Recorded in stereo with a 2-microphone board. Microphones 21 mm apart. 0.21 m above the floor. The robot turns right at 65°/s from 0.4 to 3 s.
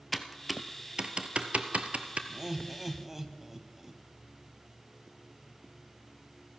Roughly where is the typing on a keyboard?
Centre.